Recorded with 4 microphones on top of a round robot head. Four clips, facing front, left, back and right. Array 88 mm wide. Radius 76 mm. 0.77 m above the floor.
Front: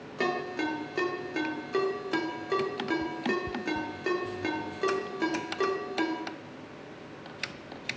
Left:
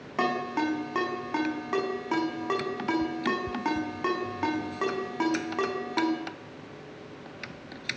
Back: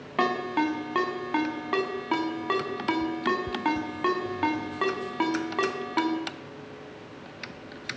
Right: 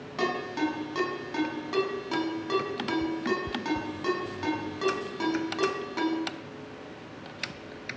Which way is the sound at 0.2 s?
155° left.